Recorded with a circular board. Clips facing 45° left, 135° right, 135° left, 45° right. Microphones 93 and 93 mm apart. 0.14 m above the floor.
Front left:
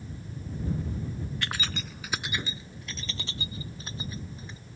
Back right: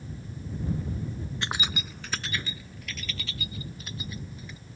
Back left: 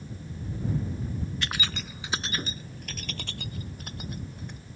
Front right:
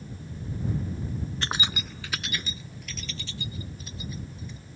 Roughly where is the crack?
No crack in this recording.